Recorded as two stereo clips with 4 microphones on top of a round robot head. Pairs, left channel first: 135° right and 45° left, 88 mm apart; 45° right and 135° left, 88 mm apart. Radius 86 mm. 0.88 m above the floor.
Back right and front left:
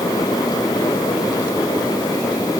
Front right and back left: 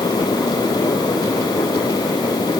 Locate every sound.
Only background noise.